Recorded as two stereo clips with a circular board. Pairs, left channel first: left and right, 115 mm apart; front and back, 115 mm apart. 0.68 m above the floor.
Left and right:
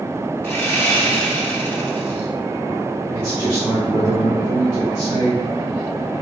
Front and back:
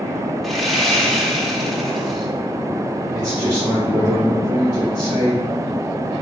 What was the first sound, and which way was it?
Sawing, 90° left.